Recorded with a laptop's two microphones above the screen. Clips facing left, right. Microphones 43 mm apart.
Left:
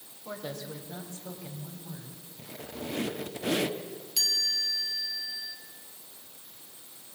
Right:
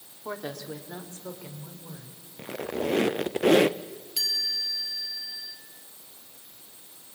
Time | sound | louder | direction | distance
0.2 | a woman speaking | right 3 dB | 70° right (ahead or behind) | 2.5 m
2.4 | a squeak | right 10 dB | 65° right (ahead or behind) | 0.5 m
4.2 | a chime | even | 10° right (ahead or behind) | 1.7 m